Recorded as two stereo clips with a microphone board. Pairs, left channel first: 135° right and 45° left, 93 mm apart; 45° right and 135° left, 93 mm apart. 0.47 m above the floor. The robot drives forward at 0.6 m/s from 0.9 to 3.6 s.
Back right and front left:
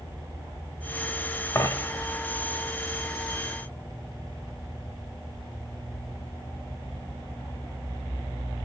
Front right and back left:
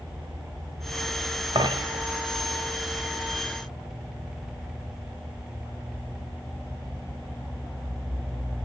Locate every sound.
1.6 s a dropped coin: 165° left, 0.9 m; by 2.0 s 170° left, 1.2 m